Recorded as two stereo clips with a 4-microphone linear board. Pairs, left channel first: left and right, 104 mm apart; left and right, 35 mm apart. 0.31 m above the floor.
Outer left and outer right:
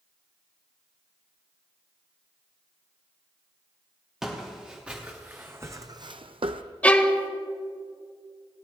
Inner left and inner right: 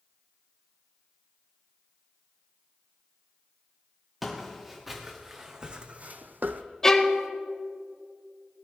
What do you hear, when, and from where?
4.2 s footsteps: 5° right (ahead or behind), 2.5 m; by 6.6 s 60° right (ahead or behind), 0.8 m
6.8 s a violin: 15° left (ahead or behind), 0.9 m